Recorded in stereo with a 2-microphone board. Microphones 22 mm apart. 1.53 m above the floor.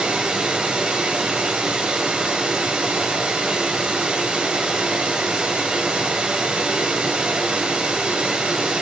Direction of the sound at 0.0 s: 70° right (ahead or behind).